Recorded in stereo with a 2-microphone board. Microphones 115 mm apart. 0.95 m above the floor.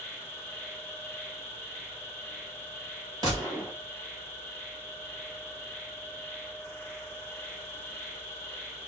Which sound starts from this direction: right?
A gunshot, at 3.2 s.